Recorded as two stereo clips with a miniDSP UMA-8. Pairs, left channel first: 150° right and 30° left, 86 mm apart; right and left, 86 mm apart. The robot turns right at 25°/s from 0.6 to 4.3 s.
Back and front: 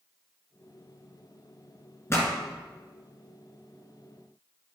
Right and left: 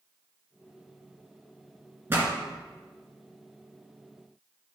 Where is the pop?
155° left, 2 m; by 2.3 s 160° left, 2 m.